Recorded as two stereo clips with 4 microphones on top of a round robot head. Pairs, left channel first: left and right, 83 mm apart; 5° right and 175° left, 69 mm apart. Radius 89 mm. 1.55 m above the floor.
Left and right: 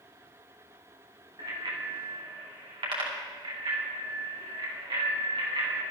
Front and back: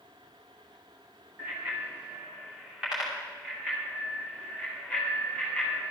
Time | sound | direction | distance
1.4 | a bicycle bell | 120° right | 2.5 m